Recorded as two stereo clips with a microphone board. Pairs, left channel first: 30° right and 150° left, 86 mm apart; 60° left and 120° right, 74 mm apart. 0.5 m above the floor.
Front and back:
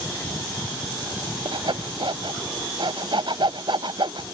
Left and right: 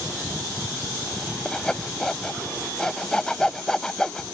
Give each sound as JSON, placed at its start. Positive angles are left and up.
{"t": 1.4, "sound": "sawing", "azimuth_deg": 140}